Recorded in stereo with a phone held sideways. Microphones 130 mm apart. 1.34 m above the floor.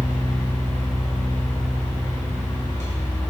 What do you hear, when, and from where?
0.0 s a fan: 25° left (ahead or behind), 2 m